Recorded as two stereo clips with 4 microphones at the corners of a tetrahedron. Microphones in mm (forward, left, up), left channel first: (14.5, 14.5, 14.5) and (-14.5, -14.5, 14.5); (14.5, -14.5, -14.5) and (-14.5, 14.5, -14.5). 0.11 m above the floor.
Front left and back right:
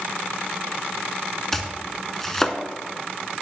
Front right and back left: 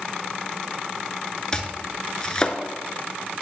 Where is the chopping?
20° right, 0.5 m.